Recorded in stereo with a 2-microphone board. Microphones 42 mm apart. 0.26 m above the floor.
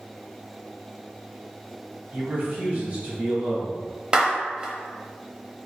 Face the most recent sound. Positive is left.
turn(degrees=-20)  # may be behind; listen again after turning